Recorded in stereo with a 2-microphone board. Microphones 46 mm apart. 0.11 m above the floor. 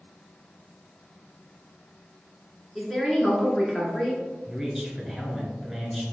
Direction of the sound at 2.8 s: 5° left (ahead or behind).